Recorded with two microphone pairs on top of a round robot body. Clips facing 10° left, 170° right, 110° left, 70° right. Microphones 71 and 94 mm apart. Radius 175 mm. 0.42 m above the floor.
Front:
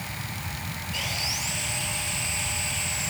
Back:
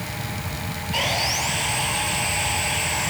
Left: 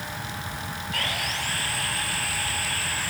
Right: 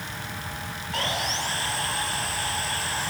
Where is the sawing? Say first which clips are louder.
Back 10 dB, right 4 dB; 135° right.